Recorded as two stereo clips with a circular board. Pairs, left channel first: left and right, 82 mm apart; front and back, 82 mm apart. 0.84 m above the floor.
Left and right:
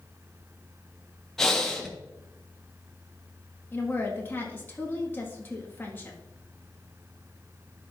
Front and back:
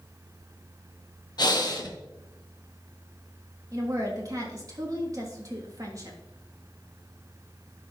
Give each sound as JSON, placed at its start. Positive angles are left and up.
{"t": 1.4, "sound": "breathing", "azimuth_deg": 5, "distance_m": 1.1}
{"t": 3.7, "sound": "a woman speaking", "azimuth_deg": 150, "distance_m": 1.5}